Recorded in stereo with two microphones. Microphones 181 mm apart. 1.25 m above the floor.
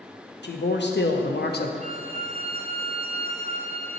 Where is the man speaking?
70° left (ahead or behind), 1.1 m; by 1.7 s 60° left (ahead or behind), 0.7 m.